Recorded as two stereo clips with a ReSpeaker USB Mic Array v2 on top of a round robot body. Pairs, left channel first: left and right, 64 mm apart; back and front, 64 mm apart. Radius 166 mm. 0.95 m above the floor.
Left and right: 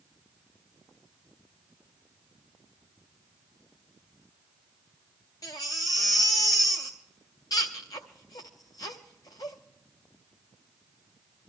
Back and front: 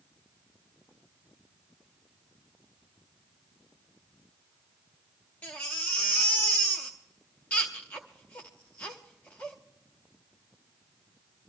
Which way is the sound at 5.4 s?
110° left.